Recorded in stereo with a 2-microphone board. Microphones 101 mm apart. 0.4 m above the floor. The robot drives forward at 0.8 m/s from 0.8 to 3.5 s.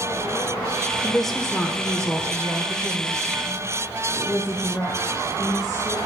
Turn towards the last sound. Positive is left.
turn(degrees=0)  # may be behind; listen again after turning